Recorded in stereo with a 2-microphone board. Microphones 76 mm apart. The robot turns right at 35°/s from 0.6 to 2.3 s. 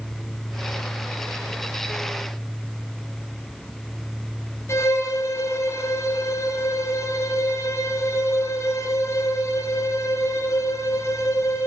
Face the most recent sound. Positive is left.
turn(degrees=35)  # may be behind; listen again after turning